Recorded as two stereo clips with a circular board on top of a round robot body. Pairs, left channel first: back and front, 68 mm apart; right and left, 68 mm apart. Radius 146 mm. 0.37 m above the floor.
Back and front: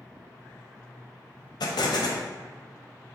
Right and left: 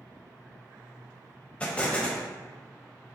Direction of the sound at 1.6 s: 165° right.